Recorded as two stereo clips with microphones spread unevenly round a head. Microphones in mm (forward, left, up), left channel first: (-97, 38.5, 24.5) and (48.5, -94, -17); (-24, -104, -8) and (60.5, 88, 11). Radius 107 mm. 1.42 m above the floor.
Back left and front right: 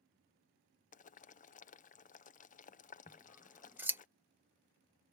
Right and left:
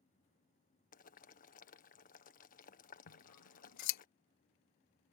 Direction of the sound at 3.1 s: 120° right.